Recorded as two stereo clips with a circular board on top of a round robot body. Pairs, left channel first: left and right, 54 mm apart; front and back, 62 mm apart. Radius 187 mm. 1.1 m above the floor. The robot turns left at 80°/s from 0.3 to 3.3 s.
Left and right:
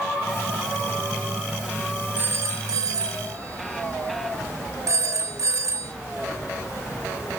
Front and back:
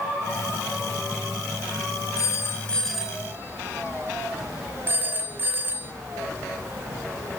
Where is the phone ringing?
30° right, 2 m; by 5.9 s 120° right, 2 m.